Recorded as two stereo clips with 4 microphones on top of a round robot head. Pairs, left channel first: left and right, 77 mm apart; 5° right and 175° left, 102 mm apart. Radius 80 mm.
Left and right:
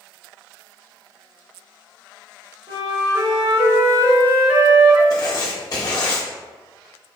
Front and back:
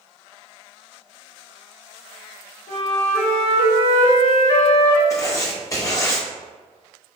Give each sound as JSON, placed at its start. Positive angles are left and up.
{"t": 2.7, "sound": "a flute", "azimuth_deg": -25, "distance_m": 1.8}
{"t": 5.1, "sound": "writing", "azimuth_deg": 55, "distance_m": 0.6}